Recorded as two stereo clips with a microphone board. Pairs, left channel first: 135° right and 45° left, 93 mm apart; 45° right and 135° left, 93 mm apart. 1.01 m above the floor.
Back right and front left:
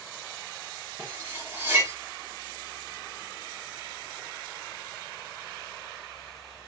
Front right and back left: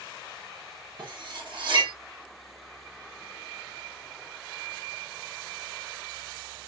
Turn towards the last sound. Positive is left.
turn(degrees=110)